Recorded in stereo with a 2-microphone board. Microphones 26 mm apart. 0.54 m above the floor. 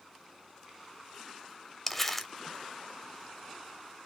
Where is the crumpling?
10° left (ahead or behind), 0.6 m.